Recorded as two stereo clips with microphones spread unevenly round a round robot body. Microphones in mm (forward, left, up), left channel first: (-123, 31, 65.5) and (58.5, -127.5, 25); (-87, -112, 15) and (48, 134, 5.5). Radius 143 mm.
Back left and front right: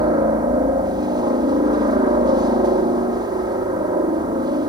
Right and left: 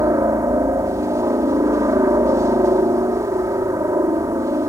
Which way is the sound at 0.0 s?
10° right.